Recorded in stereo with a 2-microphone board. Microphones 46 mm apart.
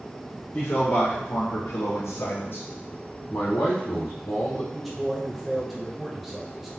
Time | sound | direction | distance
0.5 | a man speaking | 40° left (ahead or behind) | 1.6 m
3.3 | a man speaking | 85° left | 0.8 m
4.7 | a man speaking | centre (ahead or behind) | 0.6 m